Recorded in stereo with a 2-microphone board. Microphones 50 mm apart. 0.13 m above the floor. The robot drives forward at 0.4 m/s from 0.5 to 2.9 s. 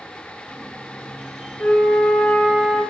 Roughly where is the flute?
Left.